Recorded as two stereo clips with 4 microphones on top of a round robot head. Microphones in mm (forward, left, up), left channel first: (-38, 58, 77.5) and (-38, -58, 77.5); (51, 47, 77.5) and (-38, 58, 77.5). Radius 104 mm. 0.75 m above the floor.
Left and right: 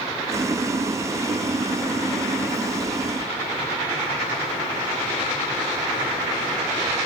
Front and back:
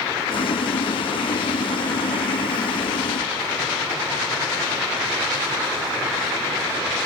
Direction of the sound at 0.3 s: 25° right.